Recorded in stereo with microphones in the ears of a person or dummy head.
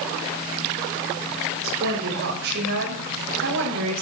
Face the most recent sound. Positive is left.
turn(degrees=-75)  # may be behind; listen again after turning